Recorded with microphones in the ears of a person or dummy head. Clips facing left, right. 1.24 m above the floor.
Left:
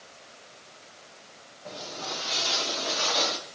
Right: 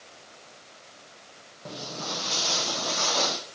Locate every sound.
1.6 s footsteps: 45° right (ahead or behind), 1.8 m; by 3.4 s 50° right (ahead or behind), 2.5 m